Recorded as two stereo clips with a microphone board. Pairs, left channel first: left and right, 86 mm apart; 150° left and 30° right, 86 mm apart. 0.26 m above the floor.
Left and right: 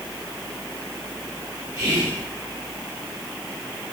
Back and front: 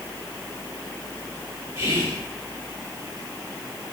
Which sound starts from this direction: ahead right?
Whispering, at 1.8 s.